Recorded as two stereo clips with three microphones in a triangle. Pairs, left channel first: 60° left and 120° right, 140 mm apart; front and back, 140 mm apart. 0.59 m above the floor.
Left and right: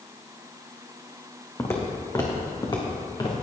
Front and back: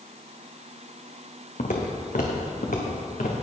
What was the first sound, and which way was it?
Footsteps, 10° right.